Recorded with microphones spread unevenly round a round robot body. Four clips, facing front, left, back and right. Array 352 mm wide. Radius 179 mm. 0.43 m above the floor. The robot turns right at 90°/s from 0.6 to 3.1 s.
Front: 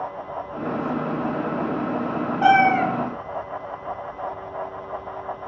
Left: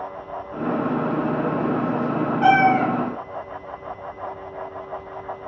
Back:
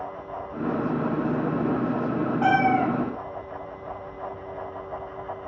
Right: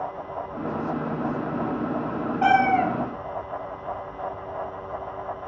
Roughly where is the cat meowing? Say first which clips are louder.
Left 3 dB, front 5 dB; ahead right.